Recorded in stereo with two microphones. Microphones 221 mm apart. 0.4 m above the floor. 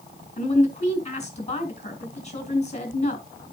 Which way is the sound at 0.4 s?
30° left (ahead or behind).